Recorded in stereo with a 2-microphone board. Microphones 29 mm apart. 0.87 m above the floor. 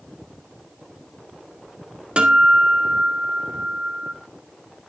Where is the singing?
No singing in this recording.